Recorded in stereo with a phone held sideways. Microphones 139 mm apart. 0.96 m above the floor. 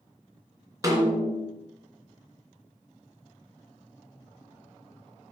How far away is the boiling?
I don't hear boiling.